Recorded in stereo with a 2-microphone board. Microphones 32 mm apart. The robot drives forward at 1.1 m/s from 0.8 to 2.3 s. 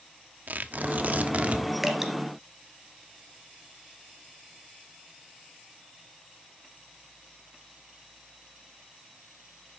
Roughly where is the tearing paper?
Right.